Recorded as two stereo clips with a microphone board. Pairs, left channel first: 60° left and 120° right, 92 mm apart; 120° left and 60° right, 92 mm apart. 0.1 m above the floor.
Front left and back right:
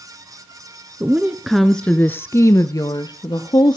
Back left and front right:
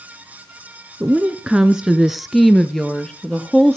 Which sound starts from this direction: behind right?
A woman speaking, at 1.0 s.